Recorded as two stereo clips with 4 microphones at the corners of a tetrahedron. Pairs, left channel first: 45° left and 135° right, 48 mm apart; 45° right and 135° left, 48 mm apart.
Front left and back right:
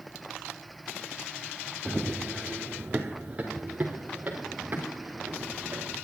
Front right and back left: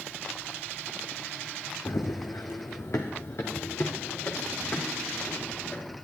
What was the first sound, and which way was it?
Running footsteps, 40° right.